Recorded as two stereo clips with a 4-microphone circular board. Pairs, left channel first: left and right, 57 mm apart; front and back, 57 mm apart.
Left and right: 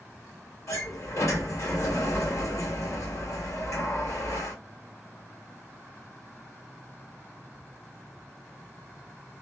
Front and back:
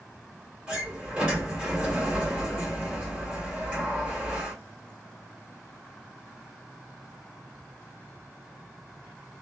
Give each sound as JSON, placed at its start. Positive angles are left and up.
{"t": 0.7, "sound": "a sliding door", "azimuth_deg": 110, "distance_m": 1.5}